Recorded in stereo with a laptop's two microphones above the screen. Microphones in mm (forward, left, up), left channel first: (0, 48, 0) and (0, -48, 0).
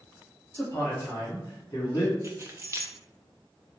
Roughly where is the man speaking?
Left.